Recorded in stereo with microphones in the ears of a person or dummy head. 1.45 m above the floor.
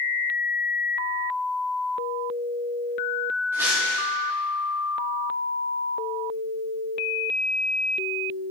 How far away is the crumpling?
About 2 m.